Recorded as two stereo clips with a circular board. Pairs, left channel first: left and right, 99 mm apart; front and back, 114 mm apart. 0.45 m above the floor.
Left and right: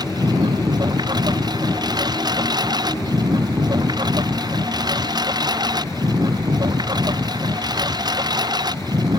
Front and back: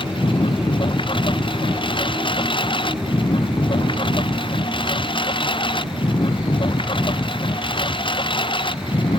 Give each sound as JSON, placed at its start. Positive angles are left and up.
{"t": 0.0, "sound": "a lawn mower", "azimuth_deg": -45}